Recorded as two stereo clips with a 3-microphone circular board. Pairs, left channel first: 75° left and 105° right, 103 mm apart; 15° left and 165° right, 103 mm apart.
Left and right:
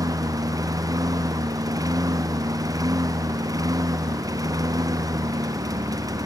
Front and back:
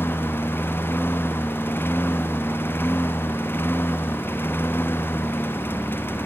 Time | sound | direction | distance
0.0 | a lawn mower | 50° right | ?